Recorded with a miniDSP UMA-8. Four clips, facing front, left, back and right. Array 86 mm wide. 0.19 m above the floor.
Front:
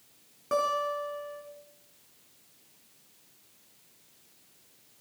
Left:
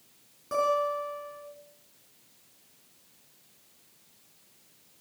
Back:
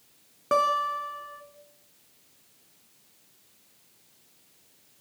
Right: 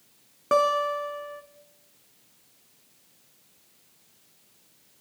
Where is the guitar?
120° right, 1.9 m.